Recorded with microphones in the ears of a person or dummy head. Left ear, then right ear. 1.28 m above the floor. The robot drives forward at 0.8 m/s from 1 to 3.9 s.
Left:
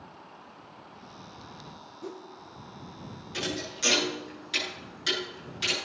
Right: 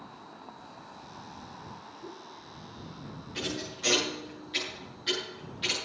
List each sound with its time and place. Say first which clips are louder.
2.0 s a whoosh: left 7 dB; 65° left (ahead or behind), 1.0 m; by 2.3 s 60° left (ahead or behind), 1.0 m
3.3 s a thud: left 3 dB; 65° left (ahead or behind), 9.5 m; by 5.7 s 70° left (ahead or behind), 9.5 m